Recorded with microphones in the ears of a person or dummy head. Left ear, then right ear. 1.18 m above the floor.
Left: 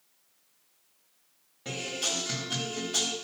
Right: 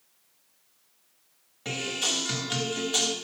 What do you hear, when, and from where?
1.6 s a guitar: 25° right (ahead or behind), 1.9 m